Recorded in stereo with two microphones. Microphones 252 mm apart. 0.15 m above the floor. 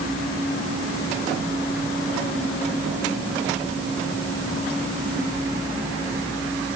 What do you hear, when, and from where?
Only background noise.